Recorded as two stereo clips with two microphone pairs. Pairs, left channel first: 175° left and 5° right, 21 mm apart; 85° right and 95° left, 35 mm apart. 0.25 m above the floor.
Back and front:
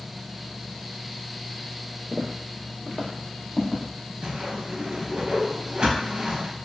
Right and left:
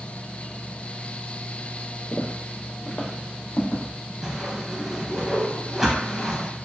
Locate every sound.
2.1 s footsteps: 60° right, 0.7 m; by 3.8 s 120° right, 1.3 m
4.2 s a whoosh: 15° left, 0.7 m